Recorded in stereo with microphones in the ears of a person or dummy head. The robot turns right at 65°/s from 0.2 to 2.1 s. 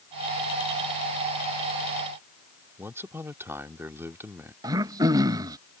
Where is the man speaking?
10° right (ahead or behind).